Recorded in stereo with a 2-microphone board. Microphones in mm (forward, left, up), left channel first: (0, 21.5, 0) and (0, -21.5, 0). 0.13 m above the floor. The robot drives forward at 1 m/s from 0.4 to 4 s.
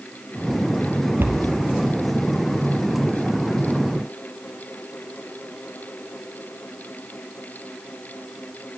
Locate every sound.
1.2 s a cupboard door: 65° right (ahead or behind), 1.0 m; by 1.6 s 50° right (ahead or behind), 1.2 m